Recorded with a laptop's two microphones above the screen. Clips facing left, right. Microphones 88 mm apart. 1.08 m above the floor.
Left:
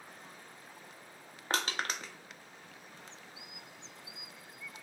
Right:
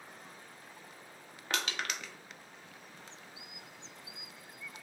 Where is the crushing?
35° left (ahead or behind), 0.5 m.